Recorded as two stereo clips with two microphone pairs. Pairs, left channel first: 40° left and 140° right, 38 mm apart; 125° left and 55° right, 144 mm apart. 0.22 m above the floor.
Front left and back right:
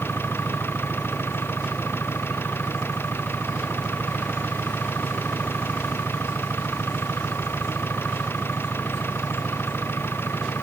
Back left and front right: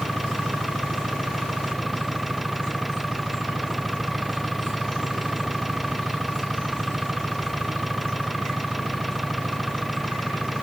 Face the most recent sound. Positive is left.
turn(degrees=35)